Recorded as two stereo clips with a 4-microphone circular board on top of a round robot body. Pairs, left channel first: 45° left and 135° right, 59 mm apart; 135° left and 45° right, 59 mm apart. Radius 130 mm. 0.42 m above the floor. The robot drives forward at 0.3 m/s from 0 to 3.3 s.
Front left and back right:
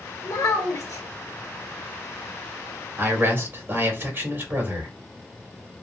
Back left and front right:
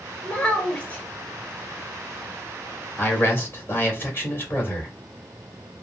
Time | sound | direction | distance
0.2 | a child speaking | 65° left | 2.0 m
3.0 | a man speaking | 175° left | 2.0 m